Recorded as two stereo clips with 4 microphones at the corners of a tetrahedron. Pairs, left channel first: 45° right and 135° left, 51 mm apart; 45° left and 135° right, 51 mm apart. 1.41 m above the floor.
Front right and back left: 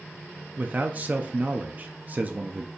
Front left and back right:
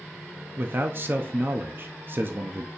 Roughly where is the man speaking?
Behind.